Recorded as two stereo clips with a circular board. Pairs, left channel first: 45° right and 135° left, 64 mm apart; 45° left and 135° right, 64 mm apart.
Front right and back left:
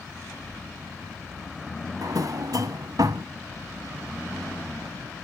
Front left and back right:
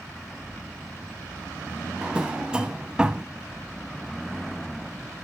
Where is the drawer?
150° left, 0.5 m.